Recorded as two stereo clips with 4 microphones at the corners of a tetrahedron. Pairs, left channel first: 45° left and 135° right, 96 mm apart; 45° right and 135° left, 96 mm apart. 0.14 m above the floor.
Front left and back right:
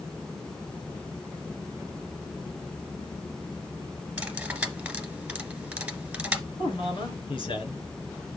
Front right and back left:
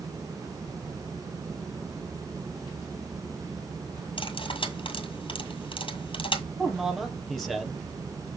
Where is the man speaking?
45° left, 3 m.